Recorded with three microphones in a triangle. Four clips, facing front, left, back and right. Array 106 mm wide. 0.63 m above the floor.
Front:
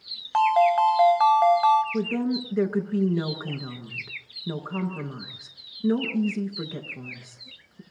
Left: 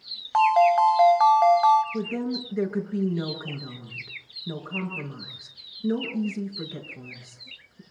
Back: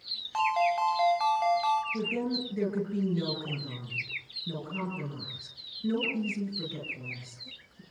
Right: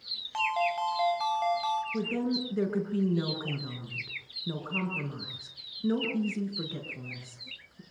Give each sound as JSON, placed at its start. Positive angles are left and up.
{"t": 0.3, "sound": "a ringtone", "azimuth_deg": 50, "distance_m": 2.5}
{"t": 1.9, "sound": "a woman speaking", "azimuth_deg": -10, "distance_m": 8.0}